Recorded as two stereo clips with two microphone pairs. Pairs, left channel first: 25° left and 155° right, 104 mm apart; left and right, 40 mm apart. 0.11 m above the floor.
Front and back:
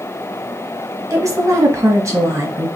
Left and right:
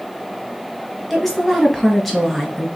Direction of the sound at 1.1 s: 175° left.